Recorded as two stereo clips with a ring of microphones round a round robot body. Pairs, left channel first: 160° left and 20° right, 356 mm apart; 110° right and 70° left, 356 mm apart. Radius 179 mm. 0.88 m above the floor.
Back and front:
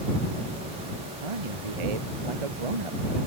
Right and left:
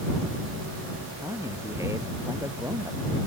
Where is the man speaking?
15° right.